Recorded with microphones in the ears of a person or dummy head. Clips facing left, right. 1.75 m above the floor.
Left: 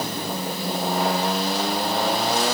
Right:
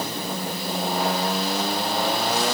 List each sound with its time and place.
Only background noise.